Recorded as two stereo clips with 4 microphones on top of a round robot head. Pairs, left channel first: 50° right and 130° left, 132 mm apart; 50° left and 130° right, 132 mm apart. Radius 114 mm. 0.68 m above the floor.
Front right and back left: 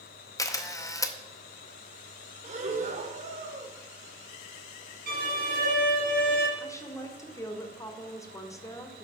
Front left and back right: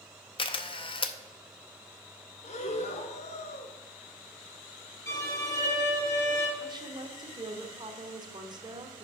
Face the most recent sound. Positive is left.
turn(degrees=-100)